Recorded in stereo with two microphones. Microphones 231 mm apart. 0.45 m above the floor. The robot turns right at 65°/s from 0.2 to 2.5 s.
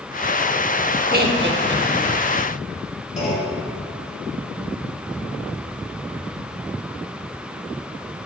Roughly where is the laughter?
Right.